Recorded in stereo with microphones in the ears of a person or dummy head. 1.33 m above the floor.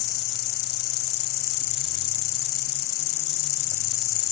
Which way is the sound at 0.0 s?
50° left (ahead or behind).